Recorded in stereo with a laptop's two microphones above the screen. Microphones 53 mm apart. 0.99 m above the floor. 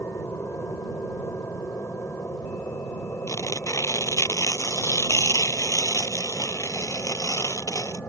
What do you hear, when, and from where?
0.0 s an aircraft: 65° left (ahead or behind); by 8.1 s 60° left (ahead or behind)
3.3 s tearing paper: 70° left (ahead or behind)